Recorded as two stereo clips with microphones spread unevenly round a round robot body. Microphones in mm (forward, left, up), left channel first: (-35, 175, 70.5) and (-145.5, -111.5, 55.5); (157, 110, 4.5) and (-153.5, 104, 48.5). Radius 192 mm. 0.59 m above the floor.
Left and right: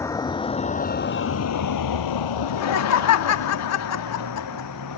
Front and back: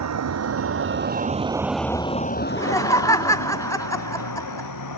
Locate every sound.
0.0 s a vehicle: 150° left; by 5.0 s 20° left
2.4 s laughter: 70° left